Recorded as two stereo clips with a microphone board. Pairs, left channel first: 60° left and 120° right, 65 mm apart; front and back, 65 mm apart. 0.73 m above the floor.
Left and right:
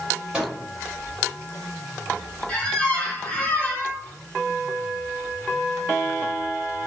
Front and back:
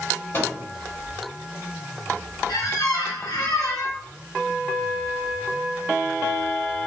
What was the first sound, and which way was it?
A microwave, 45° right.